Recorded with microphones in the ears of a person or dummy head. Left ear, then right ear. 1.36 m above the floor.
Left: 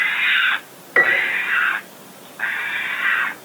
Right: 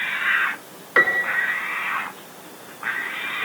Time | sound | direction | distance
1.0 | a piano | 10° right (ahead or behind) | 2.5 m